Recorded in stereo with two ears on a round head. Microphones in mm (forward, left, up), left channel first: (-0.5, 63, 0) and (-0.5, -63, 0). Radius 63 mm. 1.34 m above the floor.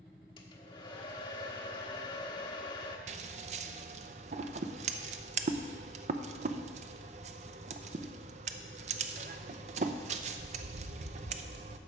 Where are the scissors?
50° right (ahead or behind), 0.6 m.